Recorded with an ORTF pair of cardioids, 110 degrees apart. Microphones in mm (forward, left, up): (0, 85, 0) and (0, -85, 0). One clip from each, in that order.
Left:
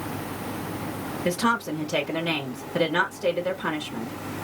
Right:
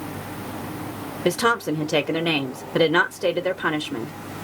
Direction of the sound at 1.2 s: 40° right.